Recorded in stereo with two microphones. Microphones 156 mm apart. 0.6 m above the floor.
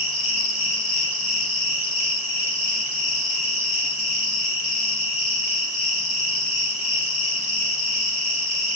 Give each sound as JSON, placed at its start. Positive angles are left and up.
{"t": 0.0, "sound": "an insect", "side_deg": 55, "distance_m": 1.0}